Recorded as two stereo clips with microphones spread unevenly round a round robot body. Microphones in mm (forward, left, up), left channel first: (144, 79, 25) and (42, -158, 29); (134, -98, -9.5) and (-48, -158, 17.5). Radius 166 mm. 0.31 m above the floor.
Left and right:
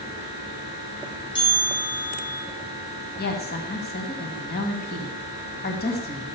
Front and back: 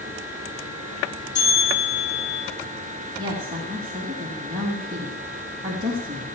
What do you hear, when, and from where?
1.4 s a bell: 5° right, 8.5 m
3.2 s a woman speaking: 120° left, 2 m